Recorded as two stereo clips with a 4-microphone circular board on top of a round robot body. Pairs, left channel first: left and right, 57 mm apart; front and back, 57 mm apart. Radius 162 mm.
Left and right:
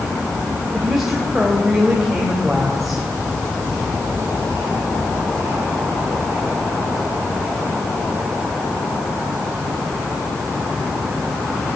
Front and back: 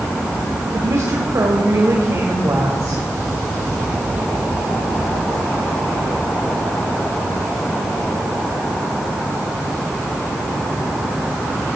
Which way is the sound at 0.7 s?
175° right.